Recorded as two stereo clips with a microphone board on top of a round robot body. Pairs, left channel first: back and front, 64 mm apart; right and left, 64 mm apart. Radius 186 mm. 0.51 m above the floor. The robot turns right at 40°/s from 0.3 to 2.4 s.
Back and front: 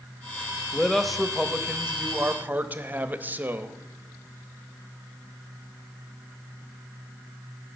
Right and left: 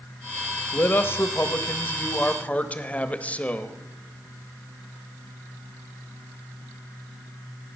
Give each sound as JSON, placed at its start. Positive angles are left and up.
{"t": 0.7, "sound": "a man speaking", "azimuth_deg": -105, "distance_m": 0.9}